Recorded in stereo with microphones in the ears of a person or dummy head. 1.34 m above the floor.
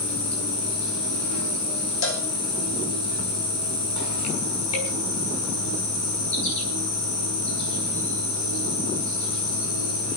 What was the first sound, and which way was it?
An insect, 80° left.